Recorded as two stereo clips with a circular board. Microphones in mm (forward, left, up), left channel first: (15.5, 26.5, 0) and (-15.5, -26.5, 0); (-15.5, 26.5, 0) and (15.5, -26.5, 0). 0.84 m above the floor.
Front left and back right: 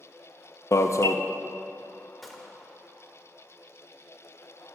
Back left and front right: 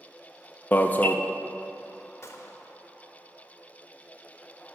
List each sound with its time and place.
0.7 s an alarm: 70° left, 0.6 m
2.2 s a gunshot: 150° left, 1.2 m